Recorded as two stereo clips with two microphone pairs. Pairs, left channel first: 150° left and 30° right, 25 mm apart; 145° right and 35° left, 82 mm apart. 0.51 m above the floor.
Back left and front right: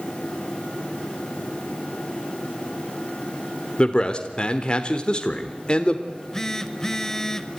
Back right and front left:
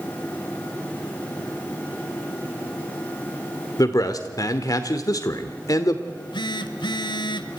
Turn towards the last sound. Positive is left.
turn(degrees=-135)